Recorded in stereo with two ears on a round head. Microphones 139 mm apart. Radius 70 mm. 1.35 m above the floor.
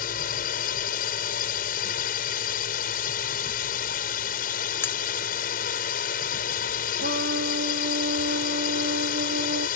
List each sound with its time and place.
0.0 s a drone: 60° left (ahead or behind)
4.8 s cutlery clinking: 15° left (ahead or behind)
7.0 s a trumpet: 80° right